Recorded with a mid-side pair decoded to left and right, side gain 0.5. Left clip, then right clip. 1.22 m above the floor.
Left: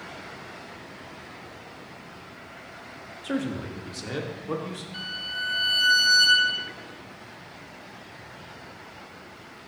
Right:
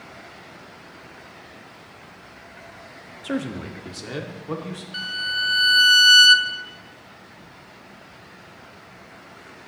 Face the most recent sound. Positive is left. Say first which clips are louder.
# right 7 dB
turn(degrees=-55)